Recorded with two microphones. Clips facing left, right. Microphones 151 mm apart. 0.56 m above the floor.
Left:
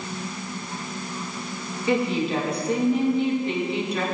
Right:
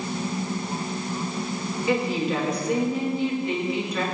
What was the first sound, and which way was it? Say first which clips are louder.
A woman speaking: left 2 dB; 35° left (ahead or behind).